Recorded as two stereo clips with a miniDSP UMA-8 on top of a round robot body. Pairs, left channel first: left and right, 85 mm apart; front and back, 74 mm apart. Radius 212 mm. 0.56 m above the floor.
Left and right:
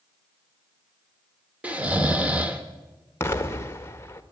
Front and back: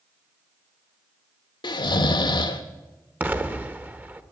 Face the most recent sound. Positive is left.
turn(degrees=130)